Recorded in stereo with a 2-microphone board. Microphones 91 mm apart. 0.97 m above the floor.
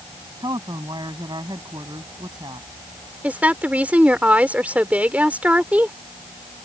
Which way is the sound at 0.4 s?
55° right (ahead or behind).